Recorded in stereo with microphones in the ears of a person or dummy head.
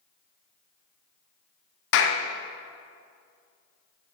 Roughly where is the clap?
Left.